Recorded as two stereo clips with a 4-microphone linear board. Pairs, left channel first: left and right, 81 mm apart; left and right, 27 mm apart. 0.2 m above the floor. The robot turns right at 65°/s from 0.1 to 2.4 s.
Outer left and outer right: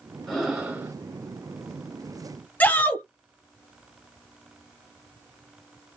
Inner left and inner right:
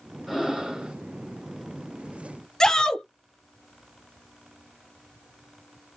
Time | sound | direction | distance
0.3 | breathing | 175° left | 1.4 m
2.6 | a shout | 20° left (ahead or behind) | 1.0 m